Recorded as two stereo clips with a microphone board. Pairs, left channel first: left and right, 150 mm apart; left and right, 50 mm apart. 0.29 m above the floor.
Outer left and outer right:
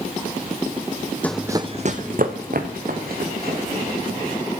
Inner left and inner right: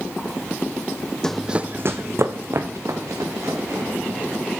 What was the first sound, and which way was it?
Running footsteps, 10° left (ahead or behind).